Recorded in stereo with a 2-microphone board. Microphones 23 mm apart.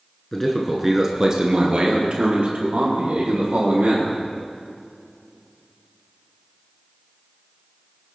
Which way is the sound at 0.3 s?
20° left (ahead or behind).